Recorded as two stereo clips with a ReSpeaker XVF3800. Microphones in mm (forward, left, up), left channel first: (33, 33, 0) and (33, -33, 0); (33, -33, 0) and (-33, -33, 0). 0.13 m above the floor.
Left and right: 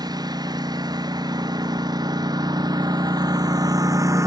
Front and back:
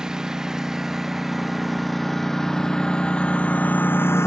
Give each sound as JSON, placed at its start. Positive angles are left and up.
{"t": 0.0, "sound": "a lawn mower", "azimuth_deg": -100}